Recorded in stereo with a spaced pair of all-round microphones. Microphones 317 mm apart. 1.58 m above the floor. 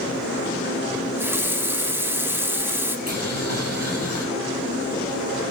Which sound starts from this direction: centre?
A running tap, at 0.9 s.